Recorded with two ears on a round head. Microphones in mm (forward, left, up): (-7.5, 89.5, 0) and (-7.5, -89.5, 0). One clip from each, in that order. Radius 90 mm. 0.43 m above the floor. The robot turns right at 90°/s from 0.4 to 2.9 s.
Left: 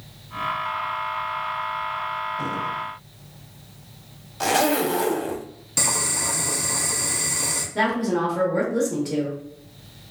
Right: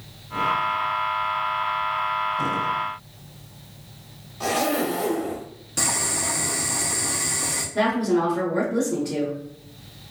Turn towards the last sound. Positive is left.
turn(degrees=15)  # may be behind; listen again after turning